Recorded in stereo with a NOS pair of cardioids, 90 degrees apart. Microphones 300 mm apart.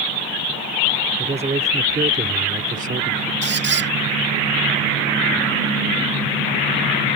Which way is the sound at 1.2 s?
20° right.